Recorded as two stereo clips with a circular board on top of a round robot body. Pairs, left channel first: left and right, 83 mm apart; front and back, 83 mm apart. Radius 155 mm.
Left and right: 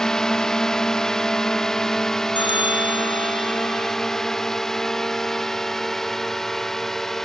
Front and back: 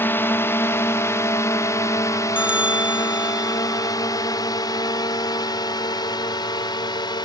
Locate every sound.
0.0 s a drone: 15° left; by 7.2 s 5° left
2.4 s a bell: 105° left